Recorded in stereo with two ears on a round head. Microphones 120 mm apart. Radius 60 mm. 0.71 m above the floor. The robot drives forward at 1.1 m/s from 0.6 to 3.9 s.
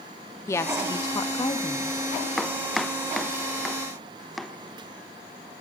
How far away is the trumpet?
No trumpet in this recording.